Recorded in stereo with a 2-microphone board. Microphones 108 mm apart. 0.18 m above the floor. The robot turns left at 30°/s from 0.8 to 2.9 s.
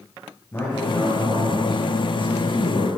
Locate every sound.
0.5 s a man speaking: 25° left, 3.5 m; by 2.9 s 40° right, 3.5 m